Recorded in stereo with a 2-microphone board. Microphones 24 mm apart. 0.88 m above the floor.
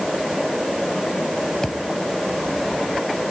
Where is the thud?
20° left (ahead or behind).